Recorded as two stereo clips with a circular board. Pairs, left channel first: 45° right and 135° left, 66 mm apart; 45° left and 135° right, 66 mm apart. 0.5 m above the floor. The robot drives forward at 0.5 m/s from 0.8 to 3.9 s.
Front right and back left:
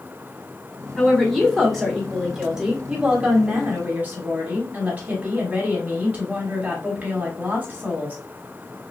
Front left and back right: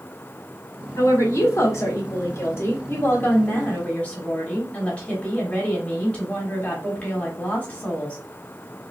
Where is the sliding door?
No sliding door in this recording.